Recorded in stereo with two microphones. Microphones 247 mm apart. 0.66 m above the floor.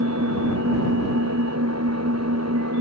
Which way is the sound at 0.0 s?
85° right.